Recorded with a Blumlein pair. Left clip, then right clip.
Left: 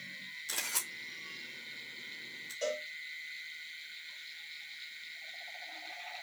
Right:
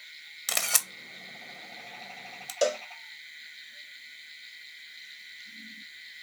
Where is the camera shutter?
40° right, 1.9 m.